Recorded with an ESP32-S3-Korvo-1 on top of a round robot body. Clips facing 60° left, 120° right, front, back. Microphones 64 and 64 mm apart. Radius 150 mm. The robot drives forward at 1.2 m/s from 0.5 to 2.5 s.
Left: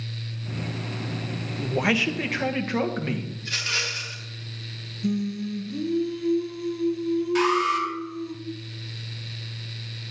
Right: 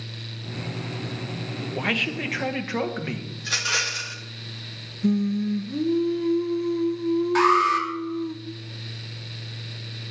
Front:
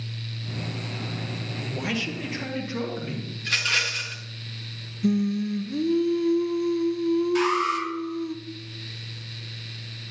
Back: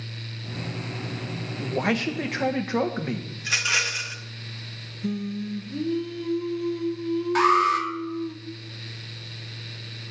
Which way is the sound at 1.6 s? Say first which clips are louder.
Left 3 dB, back 5 dB; 125° left.